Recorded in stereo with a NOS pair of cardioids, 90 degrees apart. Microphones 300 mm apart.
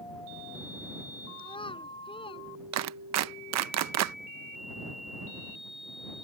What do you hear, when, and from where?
1.4 s a child speaking: 15° left
2.7 s a clap: 65° right